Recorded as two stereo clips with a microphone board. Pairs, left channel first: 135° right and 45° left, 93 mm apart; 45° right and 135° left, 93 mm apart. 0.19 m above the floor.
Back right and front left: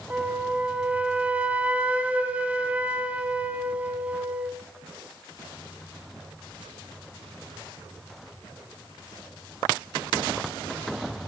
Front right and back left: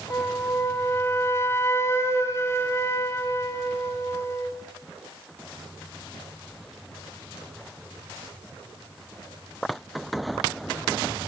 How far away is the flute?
About 1.0 m.